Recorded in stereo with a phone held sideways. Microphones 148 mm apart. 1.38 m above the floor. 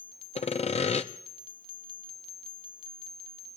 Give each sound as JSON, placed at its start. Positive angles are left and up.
{"t": 0.3, "sound": "sawing", "side_deg": 45, "distance_m": 0.5}